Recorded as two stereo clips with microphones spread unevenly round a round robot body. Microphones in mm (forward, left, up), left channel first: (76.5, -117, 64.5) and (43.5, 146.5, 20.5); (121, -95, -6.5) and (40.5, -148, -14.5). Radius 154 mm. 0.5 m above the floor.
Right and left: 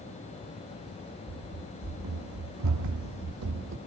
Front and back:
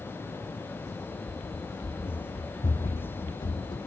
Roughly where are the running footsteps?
Left.